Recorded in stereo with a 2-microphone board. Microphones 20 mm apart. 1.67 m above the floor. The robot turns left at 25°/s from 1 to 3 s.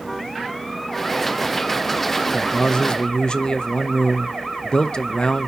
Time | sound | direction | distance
2.3 | a man speaking | 30° left (ahead or behind) | 0.6 m